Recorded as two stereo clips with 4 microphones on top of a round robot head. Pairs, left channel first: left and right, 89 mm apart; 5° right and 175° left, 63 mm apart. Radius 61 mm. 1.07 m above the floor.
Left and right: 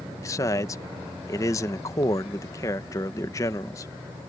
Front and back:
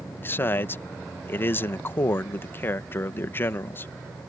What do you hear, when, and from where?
0.2 s a man speaking: 40° left